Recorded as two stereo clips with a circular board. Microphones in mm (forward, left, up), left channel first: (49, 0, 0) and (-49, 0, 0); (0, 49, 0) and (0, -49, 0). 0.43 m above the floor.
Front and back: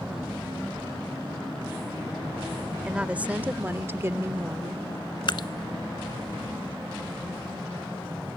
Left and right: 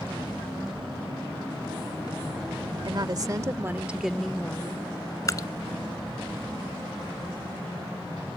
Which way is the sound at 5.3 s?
35° left.